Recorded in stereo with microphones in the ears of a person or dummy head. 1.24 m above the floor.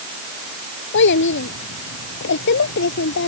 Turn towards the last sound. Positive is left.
turn(degrees=60)  # may be behind; listen again after turning